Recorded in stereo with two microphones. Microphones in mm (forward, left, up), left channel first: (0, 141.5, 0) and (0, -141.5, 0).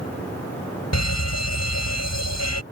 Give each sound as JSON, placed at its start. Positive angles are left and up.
{"t": 0.9, "sound": "a fire alarm", "side_deg": 70}